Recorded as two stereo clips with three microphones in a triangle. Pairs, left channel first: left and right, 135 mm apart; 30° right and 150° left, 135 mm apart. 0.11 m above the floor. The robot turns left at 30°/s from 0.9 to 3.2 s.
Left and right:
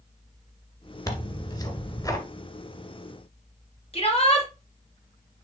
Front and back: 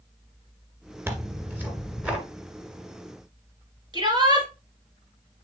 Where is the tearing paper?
105° left, 1.7 m; by 2.2 s 75° left, 1.7 m.